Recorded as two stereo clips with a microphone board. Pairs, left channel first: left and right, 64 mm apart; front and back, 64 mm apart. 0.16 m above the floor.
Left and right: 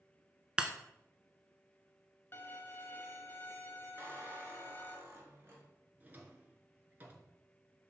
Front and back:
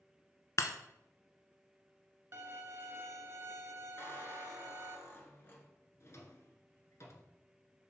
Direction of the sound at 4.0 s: 50° right.